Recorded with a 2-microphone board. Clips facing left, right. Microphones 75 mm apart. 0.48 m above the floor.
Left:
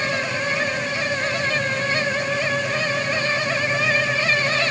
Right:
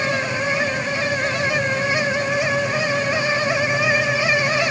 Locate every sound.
Only background noise.